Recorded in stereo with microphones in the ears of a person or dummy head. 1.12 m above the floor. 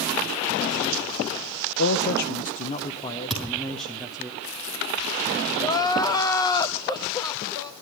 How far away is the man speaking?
About 1.2 m.